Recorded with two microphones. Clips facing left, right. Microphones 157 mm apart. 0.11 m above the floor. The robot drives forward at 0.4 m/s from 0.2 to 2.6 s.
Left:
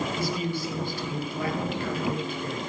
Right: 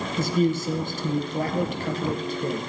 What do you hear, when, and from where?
0.2 s a man speaking: 50° right (ahead or behind), 2 m; by 2.6 s 40° right (ahead or behind), 2.5 m